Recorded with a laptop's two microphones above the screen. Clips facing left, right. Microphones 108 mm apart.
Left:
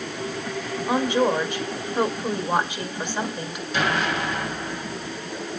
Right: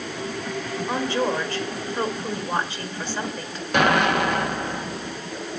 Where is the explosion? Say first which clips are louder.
Right 5 dB; 60° right (ahead or behind), 1.0 m.